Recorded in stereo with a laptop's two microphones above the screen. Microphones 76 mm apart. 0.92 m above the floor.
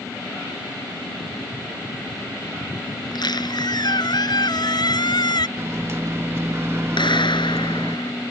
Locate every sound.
3.0 s a squeak: 65° left (ahead or behind)
5.6 s a microwave: 35° right (ahead or behind)
7.0 s a clap: 85° left